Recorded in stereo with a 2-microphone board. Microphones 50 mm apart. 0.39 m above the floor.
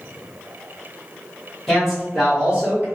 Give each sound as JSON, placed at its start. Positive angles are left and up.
{"t": 1.7, "sound": "a man speaking", "side_deg": 5, "distance_m": 1.8}